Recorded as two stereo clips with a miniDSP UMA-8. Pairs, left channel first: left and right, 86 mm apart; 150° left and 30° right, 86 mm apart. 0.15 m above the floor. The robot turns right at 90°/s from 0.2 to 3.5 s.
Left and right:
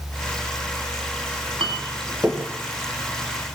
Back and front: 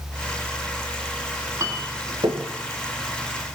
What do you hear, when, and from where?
1.6 s a clink: 80° right, 4 m; by 2.5 s 5° right, 4 m